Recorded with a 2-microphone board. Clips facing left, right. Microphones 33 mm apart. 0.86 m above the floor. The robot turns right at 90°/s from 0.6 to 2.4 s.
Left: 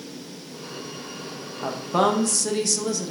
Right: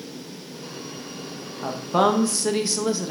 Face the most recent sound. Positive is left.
turn(degrees=-20)  # may be behind; listen again after turning